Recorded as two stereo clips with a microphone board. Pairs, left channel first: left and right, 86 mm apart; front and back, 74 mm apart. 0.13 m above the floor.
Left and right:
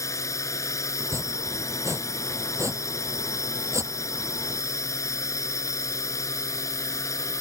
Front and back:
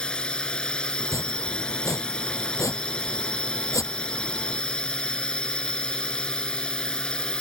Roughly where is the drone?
Left.